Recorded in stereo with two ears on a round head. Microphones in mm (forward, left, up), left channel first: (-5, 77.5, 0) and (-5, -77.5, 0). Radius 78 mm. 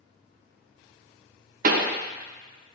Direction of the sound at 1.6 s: 50° right (ahead or behind).